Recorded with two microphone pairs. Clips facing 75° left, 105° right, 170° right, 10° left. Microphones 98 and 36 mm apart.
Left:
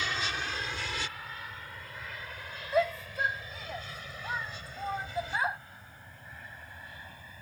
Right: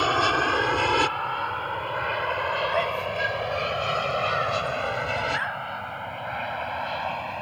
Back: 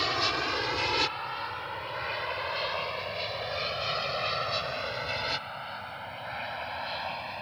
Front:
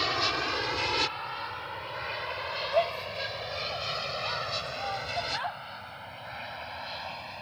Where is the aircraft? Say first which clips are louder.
Right 13 dB, even; 80° right; by 7.4 s 95° right.